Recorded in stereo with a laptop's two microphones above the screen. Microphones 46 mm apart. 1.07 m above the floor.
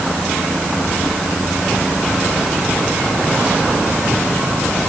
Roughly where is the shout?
I don't hear a shout.